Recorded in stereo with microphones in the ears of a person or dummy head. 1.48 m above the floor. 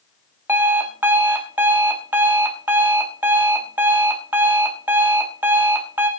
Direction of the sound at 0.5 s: 10° right (ahead or behind).